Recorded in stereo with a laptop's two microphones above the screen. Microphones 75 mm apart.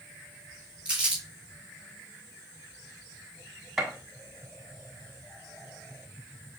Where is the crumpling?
15° right (ahead or behind), 2.0 m.